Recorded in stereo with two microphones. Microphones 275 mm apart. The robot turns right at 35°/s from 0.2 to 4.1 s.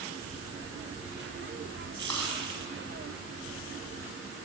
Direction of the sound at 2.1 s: 75° right (ahead or behind).